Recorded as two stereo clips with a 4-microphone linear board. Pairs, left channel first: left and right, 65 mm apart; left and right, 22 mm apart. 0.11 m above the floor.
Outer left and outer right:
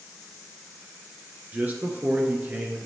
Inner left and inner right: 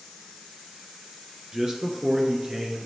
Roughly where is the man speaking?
Right.